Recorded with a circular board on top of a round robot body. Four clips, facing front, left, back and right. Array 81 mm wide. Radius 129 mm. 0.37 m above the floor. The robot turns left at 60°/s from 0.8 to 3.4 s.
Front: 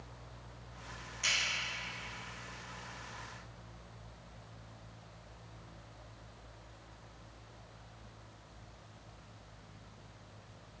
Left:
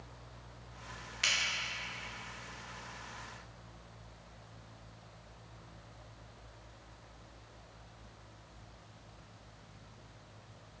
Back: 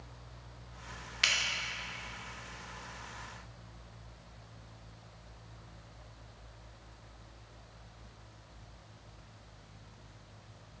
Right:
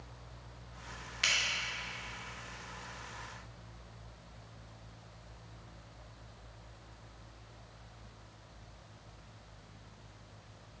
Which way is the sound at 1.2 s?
175° right.